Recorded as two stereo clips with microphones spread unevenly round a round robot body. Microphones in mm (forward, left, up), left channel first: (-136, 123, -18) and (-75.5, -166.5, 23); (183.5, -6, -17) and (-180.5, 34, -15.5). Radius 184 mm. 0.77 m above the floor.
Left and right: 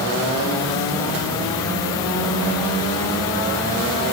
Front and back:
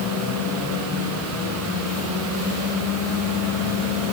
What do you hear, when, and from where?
Only background noise.